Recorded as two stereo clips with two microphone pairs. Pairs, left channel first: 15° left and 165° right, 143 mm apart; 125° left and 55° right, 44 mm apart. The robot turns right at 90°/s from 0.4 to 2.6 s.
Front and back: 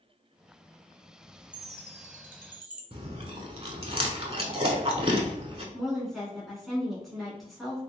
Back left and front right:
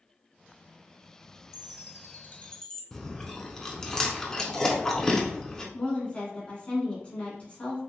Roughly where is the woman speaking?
Left.